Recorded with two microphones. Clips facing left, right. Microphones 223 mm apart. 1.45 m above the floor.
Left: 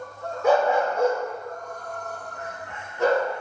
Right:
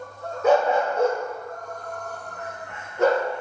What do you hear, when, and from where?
0.4 s a dog barking: 20° right (ahead or behind), 1.8 m; by 3.3 s 55° right (ahead or behind), 3 m